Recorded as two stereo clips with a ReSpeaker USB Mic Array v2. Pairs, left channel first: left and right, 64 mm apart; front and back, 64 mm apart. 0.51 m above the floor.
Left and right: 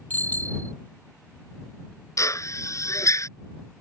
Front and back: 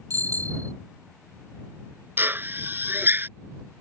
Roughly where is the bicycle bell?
Behind left.